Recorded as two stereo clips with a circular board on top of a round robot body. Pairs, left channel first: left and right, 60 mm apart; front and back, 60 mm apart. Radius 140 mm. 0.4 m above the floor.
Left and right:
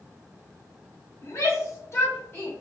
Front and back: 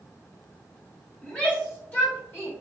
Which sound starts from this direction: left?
A shout, at 1.2 s.